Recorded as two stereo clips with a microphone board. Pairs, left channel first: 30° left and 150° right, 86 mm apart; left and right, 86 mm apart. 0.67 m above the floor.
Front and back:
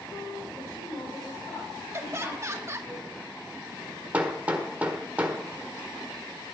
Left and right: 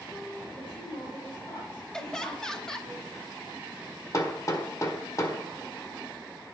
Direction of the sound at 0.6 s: 80° left.